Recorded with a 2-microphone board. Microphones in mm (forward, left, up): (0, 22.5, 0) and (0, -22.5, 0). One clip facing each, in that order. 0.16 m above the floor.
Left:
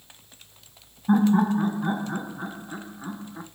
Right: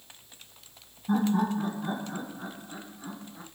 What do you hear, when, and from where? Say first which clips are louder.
1.1 s laughter: left 6 dB; 40° left (ahead or behind), 1.5 m